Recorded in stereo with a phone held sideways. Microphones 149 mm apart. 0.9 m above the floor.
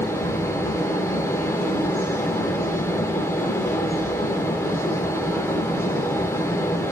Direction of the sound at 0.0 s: 15° left (ahead or behind).